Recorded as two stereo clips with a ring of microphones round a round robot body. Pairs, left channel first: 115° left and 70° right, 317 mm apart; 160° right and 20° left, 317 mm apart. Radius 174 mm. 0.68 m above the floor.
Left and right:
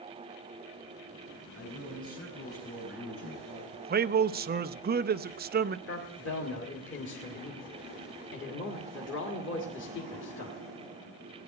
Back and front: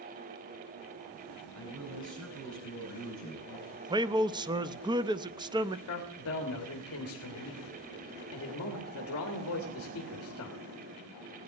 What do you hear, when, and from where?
1.6 s a man speaking: 65° left, 8.5 m
3.7 s a man speaking: 40° right, 0.6 m
5.9 s a man speaking: 160° left, 1.9 m